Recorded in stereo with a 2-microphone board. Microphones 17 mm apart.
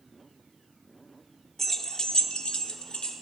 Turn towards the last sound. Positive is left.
turn(degrees=70)  # may be behind; listen again after turning